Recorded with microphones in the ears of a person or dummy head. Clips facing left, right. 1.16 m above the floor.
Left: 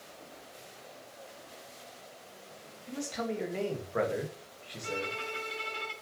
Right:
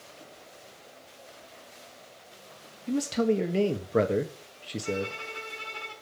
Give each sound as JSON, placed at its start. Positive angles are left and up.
{"t": 2.9, "sound": "a man speaking", "side_deg": -45, "distance_m": 1.9}
{"t": 4.8, "sound": "a violin", "side_deg": 20, "distance_m": 5.5}